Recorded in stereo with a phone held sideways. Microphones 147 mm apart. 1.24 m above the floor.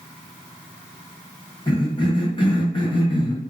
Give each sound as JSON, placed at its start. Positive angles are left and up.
{"t": 1.7, "sound": "a cough", "side_deg": 30, "distance_m": 0.9}